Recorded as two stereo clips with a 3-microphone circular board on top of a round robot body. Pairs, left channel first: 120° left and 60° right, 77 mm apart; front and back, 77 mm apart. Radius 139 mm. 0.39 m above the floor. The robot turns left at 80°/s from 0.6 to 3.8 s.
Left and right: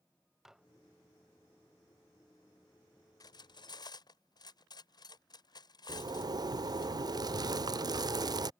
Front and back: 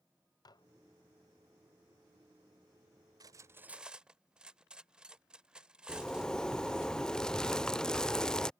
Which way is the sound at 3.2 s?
150° left.